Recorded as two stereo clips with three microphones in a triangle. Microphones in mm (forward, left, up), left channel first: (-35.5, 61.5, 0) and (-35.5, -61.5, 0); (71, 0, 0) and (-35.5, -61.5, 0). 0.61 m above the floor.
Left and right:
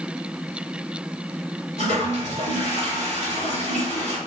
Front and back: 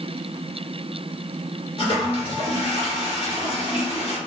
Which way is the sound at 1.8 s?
75° left.